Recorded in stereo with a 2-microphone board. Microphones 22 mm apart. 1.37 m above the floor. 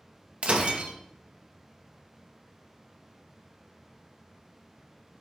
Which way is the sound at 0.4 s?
55° right (ahead or behind).